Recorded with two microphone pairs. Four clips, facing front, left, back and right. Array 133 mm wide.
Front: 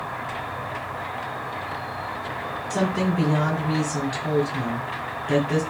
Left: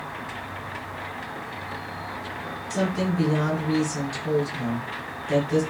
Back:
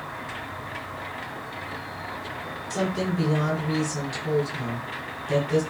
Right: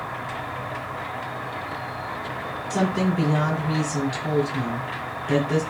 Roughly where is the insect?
Ahead right.